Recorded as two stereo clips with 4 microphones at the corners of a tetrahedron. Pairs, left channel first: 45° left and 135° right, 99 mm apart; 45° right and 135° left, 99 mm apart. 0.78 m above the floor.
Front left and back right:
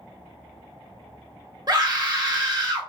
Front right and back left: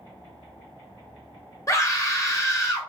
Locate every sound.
1.7 s a scream: 95° right, 1.0 m